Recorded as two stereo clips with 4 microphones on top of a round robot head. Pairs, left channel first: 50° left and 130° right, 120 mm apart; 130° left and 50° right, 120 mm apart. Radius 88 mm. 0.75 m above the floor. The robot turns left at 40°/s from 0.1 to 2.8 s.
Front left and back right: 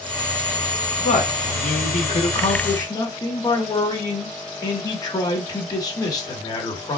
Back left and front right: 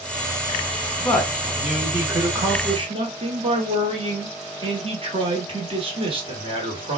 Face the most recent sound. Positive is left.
turn(degrees=-10)